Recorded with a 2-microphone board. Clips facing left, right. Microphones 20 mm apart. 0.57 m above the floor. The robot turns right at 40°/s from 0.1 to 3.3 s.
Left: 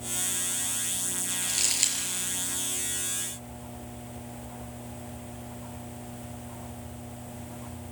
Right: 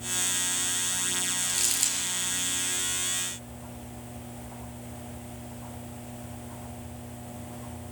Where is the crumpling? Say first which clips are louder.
Left 5 dB; 5° left (ahead or behind), 5 m; by 2.0 s 25° left (ahead or behind), 5 m.